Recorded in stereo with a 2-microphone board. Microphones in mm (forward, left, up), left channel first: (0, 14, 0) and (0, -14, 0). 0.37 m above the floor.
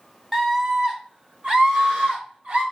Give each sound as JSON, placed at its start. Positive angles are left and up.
{"t": 0.3, "sound": "a scream", "side_deg": -10, "distance_m": 1.2}